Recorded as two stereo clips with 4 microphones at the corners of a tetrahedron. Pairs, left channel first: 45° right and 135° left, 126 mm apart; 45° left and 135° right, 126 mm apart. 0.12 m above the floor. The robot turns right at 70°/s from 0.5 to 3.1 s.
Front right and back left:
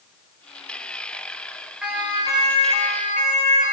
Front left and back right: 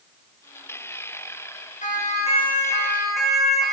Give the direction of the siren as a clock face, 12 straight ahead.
10 o'clock.